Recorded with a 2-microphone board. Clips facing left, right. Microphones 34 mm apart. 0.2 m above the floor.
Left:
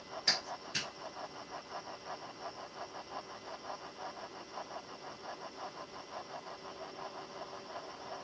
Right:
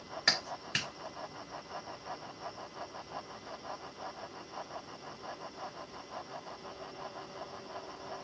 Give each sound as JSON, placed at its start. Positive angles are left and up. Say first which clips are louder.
{"t": 0.3, "sound": "a clap", "louder": "right 4 dB", "side_deg": -65, "distance_m": 3.0}